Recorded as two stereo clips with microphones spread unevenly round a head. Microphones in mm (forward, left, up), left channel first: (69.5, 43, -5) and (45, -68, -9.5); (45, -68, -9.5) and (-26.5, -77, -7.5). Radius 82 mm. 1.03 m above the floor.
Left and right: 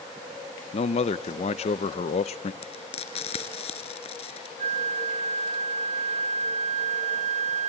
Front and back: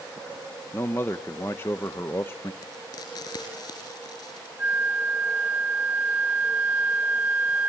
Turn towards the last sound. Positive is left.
turn(degrees=-110)